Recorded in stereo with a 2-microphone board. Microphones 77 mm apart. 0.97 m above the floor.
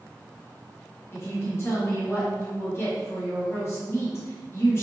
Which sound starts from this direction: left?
A woman speaking, at 1.1 s.